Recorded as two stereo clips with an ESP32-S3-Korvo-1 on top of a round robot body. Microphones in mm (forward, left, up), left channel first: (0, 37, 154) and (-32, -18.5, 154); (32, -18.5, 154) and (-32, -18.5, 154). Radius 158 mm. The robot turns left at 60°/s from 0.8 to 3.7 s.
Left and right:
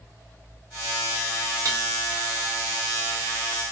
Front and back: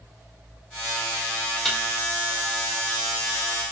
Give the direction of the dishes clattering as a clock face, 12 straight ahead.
3 o'clock.